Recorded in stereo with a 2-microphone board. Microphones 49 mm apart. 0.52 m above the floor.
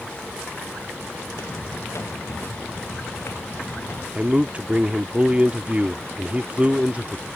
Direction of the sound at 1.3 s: 65° left (ahead or behind).